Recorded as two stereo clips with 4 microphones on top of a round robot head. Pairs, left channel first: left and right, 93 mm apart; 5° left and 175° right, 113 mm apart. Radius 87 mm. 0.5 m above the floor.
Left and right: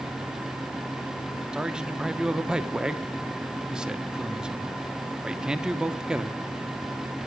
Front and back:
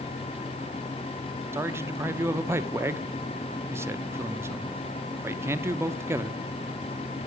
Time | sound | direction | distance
1.5 | a man speaking | 160° right | 0.6 m